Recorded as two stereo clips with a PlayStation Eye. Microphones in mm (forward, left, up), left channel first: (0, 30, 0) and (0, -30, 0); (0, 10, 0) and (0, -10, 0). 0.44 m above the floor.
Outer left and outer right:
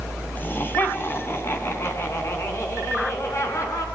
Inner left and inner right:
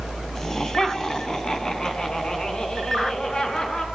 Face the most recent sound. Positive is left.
turn(degrees=55)  # may be behind; listen again after turning